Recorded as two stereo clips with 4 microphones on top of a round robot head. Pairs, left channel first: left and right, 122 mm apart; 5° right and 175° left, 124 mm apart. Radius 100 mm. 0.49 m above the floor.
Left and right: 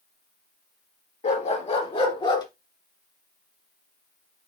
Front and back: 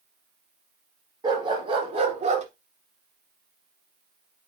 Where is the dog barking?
120° left, 3 m; by 2.5 s 145° left, 2 m.